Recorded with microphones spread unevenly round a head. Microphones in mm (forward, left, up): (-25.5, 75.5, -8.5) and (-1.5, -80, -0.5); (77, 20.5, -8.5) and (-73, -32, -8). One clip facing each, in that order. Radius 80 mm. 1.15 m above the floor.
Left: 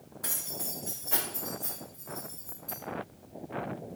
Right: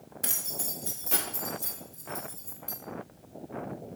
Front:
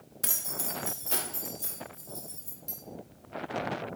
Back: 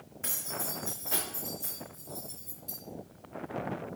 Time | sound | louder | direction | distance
0.2 | keys jangling | even, back 1 dB | 20° right | 0.6 m